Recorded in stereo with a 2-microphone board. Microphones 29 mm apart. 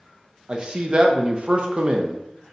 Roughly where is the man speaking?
Right.